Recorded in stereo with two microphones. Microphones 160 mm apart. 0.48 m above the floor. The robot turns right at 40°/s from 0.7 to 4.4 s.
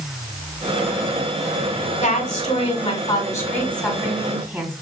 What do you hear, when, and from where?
2.0 s a woman speaking: 100° left, 1.6 m; by 4.7 s 165° right, 1.6 m